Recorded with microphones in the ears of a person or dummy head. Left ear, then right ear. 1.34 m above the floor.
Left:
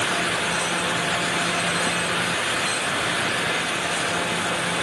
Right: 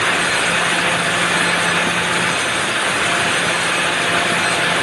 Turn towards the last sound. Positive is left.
No sound to turn to.